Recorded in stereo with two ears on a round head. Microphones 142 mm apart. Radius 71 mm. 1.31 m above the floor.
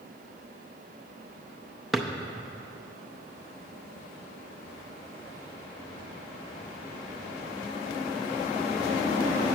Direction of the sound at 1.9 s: Centre (ahead or behind).